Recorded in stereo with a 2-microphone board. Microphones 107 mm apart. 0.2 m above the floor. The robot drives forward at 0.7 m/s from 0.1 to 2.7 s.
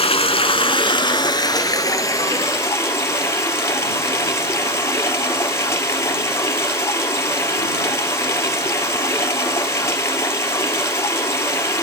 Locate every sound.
0.0 s running water: 65° left (ahead or behind), 1.0 m; by 11.8 s 25° left (ahead or behind), 2 m